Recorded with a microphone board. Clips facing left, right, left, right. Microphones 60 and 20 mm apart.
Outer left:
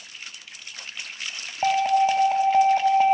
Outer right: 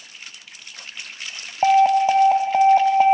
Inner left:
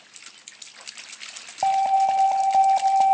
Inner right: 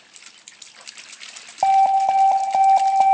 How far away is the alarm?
About 0.5 m.